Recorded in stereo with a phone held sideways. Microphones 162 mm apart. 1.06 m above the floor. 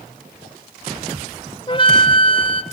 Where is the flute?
30° left (ahead or behind), 1.0 m.